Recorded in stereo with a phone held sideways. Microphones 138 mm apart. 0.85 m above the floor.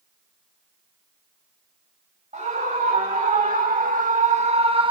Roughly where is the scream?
Right.